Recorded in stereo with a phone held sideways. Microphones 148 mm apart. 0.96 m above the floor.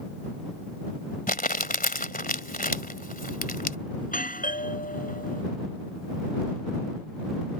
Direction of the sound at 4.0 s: 70° left (ahead or behind).